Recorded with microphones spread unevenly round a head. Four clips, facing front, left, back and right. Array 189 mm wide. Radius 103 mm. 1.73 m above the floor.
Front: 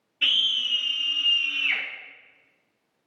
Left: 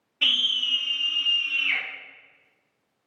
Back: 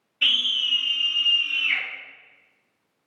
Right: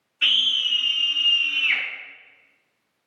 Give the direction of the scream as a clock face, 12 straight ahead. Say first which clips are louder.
Right 2 dB, back 1 dB; 10 o'clock.